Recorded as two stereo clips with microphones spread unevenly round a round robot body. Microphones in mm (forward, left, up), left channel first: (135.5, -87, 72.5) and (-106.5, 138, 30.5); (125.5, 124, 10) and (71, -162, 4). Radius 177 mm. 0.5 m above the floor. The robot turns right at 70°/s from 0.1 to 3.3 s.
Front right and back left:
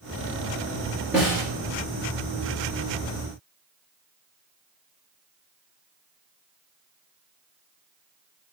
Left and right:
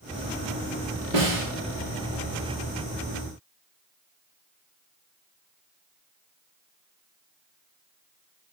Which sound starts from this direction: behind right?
A snare drum, at 1.1 s.